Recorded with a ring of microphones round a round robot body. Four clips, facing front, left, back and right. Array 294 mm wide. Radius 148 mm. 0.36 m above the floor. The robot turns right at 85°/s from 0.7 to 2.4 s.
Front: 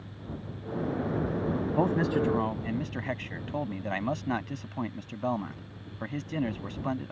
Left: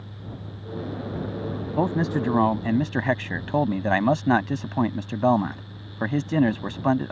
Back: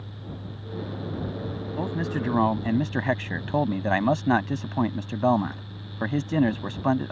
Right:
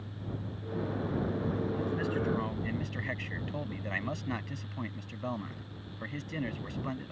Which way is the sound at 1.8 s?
65° left.